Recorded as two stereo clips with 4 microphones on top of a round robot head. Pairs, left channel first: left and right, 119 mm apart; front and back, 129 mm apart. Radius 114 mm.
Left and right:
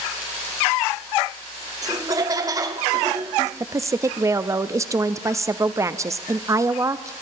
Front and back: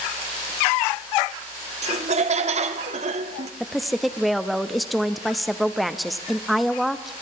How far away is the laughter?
About 1.1 m.